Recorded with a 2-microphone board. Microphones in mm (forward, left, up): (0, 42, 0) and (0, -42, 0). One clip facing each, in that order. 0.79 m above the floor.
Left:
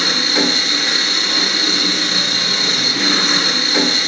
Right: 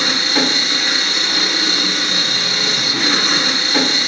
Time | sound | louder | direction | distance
0.0 | an engine running | even | centre (ahead or behind) | 0.9 m